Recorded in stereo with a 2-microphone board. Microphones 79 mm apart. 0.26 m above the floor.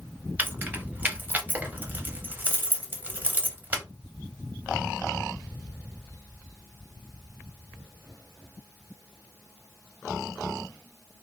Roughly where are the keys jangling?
Right.